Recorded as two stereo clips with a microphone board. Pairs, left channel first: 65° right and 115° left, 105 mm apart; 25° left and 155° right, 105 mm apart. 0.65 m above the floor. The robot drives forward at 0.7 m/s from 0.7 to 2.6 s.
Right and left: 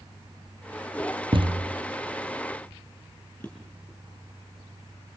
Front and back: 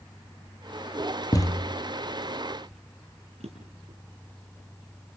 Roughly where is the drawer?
Behind right.